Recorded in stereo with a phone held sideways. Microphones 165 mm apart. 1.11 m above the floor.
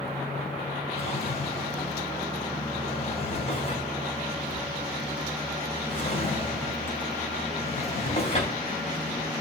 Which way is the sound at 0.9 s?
40° left (ahead or behind).